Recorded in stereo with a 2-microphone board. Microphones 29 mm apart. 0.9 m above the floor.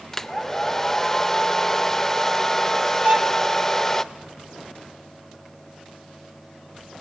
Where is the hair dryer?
10° left (ahead or behind), 0.6 m.